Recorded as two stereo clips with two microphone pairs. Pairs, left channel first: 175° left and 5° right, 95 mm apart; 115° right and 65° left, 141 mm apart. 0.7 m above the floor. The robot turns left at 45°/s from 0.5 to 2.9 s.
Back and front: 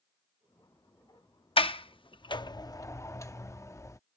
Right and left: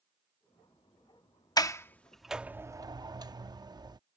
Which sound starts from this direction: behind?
A sliding door, at 1.6 s.